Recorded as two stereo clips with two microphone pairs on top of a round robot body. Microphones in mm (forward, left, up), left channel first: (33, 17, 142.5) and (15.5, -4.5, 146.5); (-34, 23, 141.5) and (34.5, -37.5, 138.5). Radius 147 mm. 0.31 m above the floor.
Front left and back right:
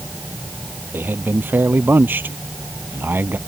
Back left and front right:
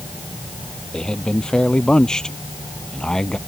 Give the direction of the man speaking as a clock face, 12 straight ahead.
5 o'clock.